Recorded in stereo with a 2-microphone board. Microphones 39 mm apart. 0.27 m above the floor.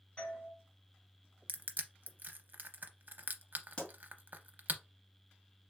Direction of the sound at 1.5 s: 55° right (ahead or behind).